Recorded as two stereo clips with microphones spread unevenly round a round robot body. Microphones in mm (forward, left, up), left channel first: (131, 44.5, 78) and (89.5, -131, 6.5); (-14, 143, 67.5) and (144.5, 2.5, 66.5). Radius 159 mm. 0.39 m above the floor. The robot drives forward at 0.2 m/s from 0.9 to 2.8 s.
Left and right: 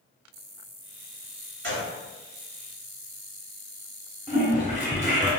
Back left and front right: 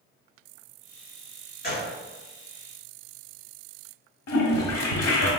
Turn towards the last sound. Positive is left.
turn(degrees=140)